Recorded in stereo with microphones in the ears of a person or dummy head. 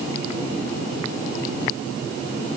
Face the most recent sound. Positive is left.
No sound to turn to.